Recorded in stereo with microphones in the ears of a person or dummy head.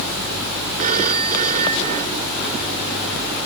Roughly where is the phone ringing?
Right.